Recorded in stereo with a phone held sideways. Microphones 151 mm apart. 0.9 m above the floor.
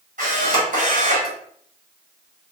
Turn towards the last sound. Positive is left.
turn(degrees=-55)  # may be behind; listen again after turning